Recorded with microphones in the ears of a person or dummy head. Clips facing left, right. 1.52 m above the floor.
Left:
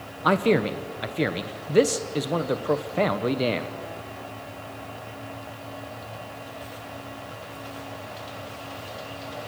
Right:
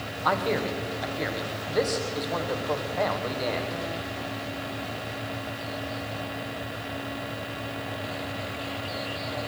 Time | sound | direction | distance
0.2 | a man speaking | 45° left (ahead or behind) | 1.1 m